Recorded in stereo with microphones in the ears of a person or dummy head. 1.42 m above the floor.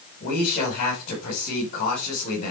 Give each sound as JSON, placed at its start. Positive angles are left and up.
{"t": 0.2, "sound": "a man speaking", "side_deg": 45, "distance_m": 6.0}